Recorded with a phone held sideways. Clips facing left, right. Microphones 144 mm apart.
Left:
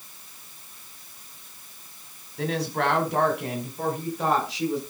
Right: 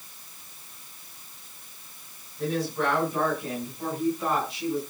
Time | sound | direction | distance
2.4 | a woman speaking | 80° left | 4 m